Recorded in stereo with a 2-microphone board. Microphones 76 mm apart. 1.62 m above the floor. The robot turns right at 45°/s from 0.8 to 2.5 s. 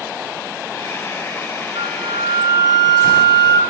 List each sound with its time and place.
1.8 s a flute: 85° right, 3 m; by 3.6 s 50° right, 3 m